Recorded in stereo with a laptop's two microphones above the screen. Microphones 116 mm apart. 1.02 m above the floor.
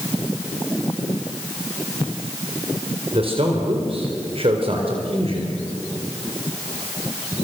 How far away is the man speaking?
About 4 m.